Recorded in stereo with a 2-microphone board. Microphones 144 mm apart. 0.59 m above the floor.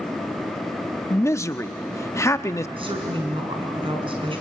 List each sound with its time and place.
1.1 s a man speaking: 20° left (ahead or behind), 0.7 m
2.8 s a woman speaking: 40° right (ahead or behind), 5 m